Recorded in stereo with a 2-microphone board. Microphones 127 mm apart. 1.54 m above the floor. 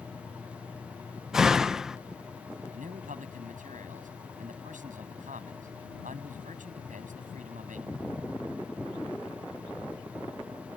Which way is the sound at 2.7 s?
80° right.